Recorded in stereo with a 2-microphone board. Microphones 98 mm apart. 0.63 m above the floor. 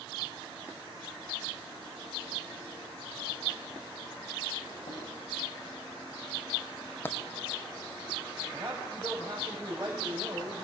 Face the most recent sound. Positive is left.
turn(degrees=-30)  # may be behind; listen again after turning